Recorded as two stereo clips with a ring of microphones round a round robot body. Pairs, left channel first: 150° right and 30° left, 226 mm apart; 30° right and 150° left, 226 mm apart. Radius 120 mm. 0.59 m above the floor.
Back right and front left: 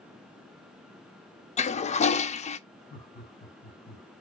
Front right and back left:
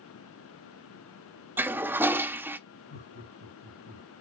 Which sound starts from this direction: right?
Laughter, at 2.9 s.